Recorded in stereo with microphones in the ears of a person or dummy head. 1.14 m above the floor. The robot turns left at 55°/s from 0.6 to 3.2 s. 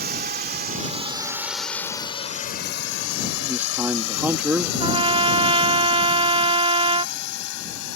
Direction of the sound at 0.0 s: 45° right (ahead or behind).